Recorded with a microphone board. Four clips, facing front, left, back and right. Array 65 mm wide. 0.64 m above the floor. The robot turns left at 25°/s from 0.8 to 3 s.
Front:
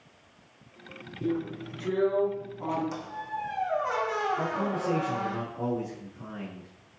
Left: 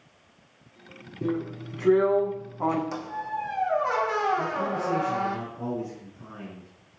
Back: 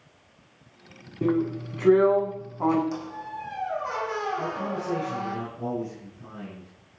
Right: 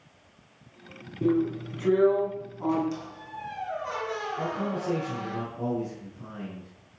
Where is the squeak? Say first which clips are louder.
Left 7 dB, back 1 dB; 85° left, 2 m; by 5.4 s 80° left, 2 m.